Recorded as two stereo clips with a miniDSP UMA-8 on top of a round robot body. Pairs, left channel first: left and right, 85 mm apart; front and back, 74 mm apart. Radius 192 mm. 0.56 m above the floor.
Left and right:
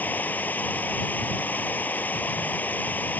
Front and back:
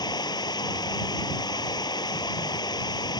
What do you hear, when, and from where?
0.0 s running water: 20° left